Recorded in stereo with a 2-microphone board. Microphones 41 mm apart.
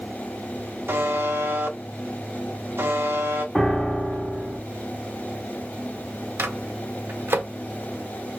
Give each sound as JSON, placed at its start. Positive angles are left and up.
{"t": 0.9, "sound": "a buzzer", "side_deg": -65, "distance_m": 0.7}
{"t": 3.5, "sound": "a piano", "side_deg": 10, "distance_m": 0.9}
{"t": 6.4, "sound": "a microwave", "side_deg": -60, "distance_m": 0.7}